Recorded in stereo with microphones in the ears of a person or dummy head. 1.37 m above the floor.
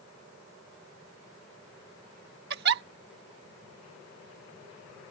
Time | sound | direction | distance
2.5 | a giggle | 60° right (ahead or behind) | ?